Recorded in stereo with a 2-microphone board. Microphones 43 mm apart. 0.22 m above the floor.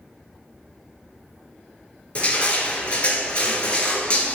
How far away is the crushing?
About 0.6 m.